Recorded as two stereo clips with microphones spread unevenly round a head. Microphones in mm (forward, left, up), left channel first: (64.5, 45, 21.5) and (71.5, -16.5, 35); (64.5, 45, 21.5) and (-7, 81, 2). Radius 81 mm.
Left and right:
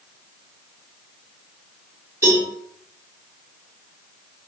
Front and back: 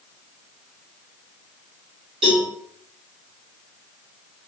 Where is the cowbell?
155° right, 5 m.